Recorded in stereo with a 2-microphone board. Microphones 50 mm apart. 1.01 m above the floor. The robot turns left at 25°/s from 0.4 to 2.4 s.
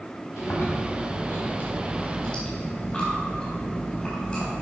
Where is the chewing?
70° left, 4 m; by 4.6 s 20° left, 4 m.